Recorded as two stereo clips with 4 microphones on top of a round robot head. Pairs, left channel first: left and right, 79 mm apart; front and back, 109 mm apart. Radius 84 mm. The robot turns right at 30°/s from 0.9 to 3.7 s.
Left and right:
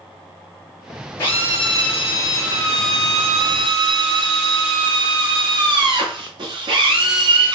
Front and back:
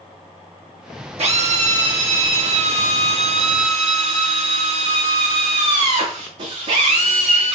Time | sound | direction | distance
1.2 | a drill | 155° left | 8 m